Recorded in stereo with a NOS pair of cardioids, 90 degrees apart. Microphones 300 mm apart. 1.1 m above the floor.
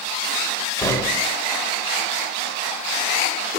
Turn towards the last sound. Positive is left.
turn(degrees=10)